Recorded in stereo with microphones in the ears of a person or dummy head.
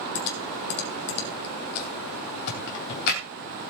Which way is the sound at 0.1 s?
60° left (ahead or behind).